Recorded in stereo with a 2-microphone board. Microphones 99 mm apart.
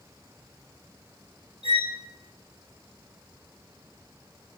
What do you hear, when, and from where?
1.6 s a violin: 85° right, 3 m